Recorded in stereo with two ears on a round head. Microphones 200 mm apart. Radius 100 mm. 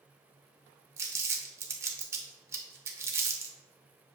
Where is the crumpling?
15° right (ahead or behind), 0.6 m.